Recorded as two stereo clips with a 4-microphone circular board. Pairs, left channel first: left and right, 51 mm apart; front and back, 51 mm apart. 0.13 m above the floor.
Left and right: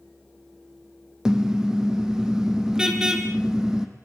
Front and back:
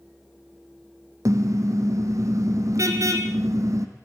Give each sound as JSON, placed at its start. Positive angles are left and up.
{"t": 1.2, "sound": "a car horn", "azimuth_deg": -165, "distance_m": 3.0}